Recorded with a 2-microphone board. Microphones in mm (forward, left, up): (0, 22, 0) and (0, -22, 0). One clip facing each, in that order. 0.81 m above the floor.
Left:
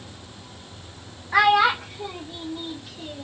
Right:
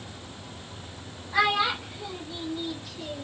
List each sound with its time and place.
1.3 s a child speaking: 75° left (ahead or behind), 0.6 m; by 3.2 s 10° left (ahead or behind), 1.1 m